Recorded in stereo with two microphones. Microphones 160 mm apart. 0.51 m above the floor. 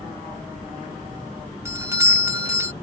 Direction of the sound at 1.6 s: 20° right (ahead or behind).